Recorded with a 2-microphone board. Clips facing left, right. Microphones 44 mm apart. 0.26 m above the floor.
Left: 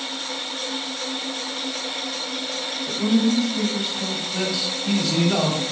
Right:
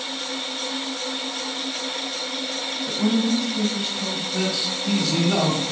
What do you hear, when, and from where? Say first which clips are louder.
2.9 s a woman speaking: left 1 dB; 10° right (ahead or behind), 1.1 m; by 4.2 s 10° left (ahead or behind), 1.1 m
4.3 s a man speaking: right 1 dB; 5° left (ahead or behind), 1.0 m